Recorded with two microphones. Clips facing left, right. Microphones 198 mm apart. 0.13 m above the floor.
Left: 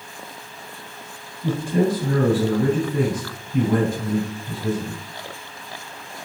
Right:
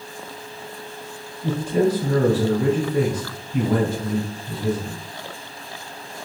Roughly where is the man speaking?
Centre.